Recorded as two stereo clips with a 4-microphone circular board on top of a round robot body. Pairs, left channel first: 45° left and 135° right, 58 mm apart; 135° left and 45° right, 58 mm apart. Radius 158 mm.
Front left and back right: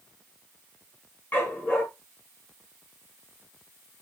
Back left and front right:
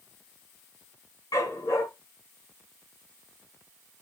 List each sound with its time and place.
1.3 s a dog barking: 110° left, 3.5 m